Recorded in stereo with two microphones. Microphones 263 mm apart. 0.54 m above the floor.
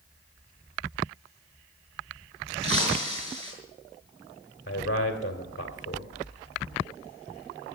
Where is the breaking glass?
50° left (ahead or behind), 5.5 m.